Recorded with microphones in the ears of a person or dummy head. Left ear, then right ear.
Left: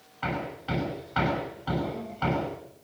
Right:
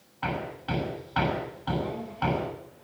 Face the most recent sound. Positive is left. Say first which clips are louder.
# even
turn(degrees=-5)  # may be behind; listen again after turning